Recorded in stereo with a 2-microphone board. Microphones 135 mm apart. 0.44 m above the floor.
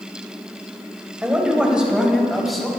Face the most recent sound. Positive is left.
turn(degrees=0)  # may be behind; listen again after turning